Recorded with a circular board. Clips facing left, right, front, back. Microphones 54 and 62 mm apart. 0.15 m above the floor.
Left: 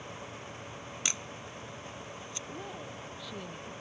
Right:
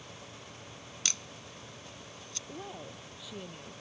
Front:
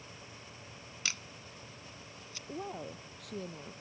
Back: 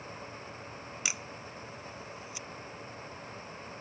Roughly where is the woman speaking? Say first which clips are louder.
Right 1 dB, front 3 dB; ahead.